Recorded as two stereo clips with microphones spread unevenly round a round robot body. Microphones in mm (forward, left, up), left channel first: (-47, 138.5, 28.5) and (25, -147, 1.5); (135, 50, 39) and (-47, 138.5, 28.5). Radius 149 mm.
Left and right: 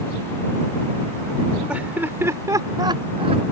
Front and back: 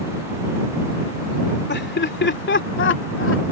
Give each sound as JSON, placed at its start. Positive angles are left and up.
{"t": 1.7, "sound": "laughter", "azimuth_deg": 10}